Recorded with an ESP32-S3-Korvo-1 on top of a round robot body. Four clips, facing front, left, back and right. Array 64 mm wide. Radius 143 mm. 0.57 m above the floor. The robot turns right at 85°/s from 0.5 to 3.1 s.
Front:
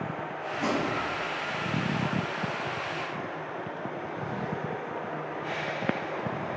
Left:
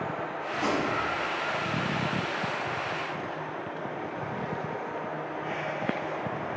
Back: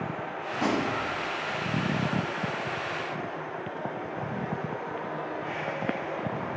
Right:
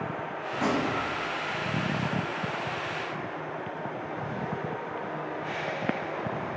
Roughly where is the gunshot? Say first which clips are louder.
Right 1 dB, back 1 dB; behind right.